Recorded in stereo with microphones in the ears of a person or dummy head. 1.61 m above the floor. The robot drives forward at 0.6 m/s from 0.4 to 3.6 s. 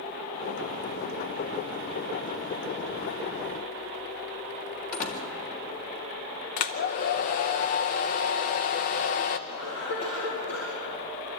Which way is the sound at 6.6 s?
45° left (ahead or behind).